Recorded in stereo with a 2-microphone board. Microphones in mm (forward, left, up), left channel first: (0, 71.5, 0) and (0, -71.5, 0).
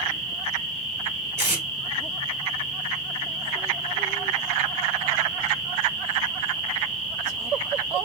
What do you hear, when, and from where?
1.4 s tape being pulled: 15° right (ahead or behind), 2.5 m